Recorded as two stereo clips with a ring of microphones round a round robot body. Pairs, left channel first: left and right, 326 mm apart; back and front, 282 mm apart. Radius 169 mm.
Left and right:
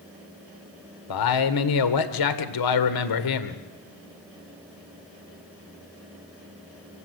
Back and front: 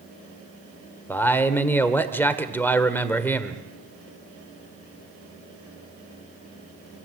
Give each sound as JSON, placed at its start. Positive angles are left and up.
{"t": 1.1, "sound": "a man speaking", "azimuth_deg": 95, "distance_m": 1.8}